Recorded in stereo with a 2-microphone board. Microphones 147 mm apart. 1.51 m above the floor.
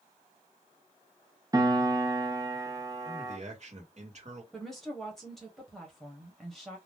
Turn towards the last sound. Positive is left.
turn(degrees=0)  # may be behind; listen again after turning